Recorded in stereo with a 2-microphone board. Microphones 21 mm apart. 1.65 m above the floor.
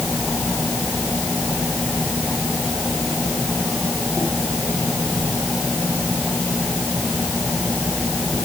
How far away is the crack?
I don't hear a crack.